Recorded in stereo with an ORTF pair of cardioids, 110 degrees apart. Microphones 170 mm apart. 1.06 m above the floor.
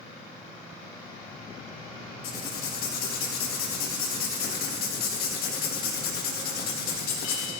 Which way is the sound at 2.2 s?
70° left.